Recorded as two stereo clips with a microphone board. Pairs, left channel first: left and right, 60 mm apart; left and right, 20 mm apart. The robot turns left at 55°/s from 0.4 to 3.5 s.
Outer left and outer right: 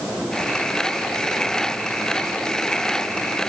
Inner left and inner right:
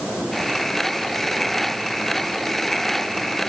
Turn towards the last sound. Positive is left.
No sound to turn to.